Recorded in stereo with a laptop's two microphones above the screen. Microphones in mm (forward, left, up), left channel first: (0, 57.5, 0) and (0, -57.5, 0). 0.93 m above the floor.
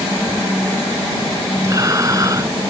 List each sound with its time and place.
1.6 s breathing: 35° right (ahead or behind)